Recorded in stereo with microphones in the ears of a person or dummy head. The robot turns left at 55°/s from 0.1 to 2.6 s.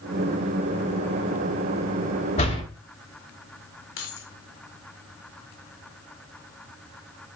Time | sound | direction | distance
2.4 | a door slam | 40° left (ahead or behind) | 1.9 m
4.0 | keys jangling | 65° left (ahead or behind) | 2.5 m